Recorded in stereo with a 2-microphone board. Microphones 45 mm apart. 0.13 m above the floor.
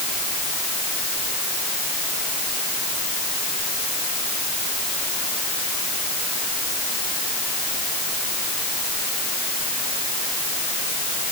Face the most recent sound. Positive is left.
No sound to turn to.